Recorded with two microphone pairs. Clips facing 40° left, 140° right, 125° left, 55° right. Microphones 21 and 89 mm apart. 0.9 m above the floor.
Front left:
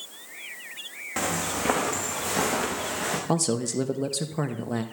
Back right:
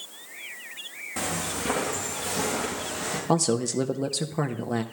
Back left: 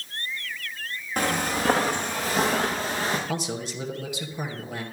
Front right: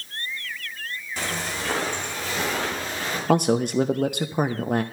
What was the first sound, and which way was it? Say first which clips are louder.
Footsteps: front left 3 dB, back left 6 dB; 90° left.